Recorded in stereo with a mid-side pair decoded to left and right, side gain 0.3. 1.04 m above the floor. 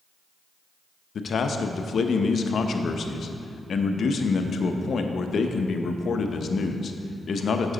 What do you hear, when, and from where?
1.1 s a man speaking: 65° left, 0.7 m